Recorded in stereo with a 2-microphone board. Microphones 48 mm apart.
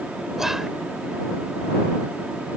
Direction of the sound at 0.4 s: 10° right (ahead or behind).